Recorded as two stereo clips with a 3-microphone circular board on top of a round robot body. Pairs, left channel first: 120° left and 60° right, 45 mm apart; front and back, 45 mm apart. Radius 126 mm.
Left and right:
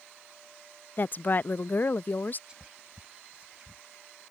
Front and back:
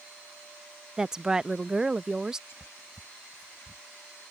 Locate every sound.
1.0 s a woman speaking: 110° left
2.5 s whispering: 5° left